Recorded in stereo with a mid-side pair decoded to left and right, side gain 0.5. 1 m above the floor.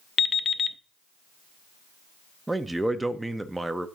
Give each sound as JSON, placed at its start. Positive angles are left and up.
{"t": 0.2, "sound": "an alarm clock", "azimuth_deg": 40, "distance_m": 0.6}
{"t": 2.5, "sound": "a man speaking", "azimuth_deg": -10, "distance_m": 0.5}